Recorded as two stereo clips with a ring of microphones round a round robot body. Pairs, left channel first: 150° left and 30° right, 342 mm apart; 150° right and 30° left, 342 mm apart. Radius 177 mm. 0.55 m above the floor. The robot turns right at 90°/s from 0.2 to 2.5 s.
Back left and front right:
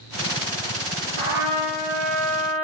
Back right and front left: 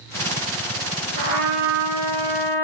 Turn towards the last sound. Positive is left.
turn(degrees=155)